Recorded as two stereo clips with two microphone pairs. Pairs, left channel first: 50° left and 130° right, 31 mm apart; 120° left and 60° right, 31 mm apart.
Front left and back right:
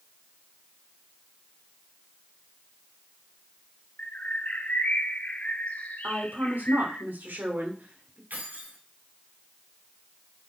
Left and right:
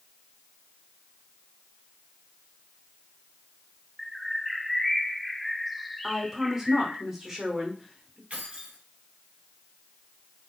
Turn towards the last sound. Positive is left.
turn(degrees=-110)